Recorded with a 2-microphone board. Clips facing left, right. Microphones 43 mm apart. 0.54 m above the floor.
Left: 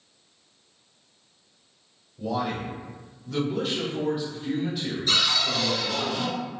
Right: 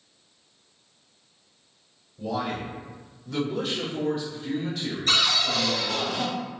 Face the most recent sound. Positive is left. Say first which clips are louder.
# right 1 dB
turn(degrees=-70)  # may be behind; listen again after turning